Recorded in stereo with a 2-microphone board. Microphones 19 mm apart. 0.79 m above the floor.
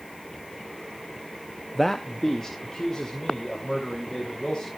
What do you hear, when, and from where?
1.8 s a man speaking: 5° left (ahead or behind), 0.6 m; by 4.7 s 40° left (ahead or behind), 4 m